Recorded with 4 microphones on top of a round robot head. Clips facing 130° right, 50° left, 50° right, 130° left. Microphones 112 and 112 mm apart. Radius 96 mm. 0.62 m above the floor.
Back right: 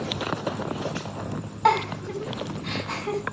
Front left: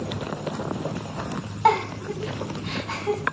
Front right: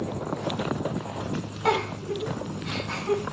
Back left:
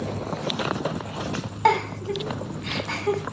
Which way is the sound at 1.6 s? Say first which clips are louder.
Front left 1 dB, back left 4 dB; 135° left.